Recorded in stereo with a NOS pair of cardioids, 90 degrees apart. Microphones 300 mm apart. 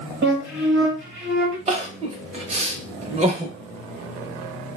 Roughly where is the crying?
Ahead right.